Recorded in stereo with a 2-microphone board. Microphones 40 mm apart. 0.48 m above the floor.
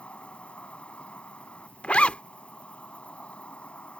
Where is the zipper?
30° left (ahead or behind).